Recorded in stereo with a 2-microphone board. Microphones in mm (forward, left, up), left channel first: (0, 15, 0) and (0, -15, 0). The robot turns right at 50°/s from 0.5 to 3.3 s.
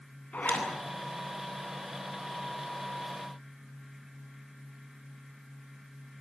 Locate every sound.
0.3 s a zipper: 60° left (ahead or behind), 9 m; by 0.7 s 50° left (ahead or behind), 9 m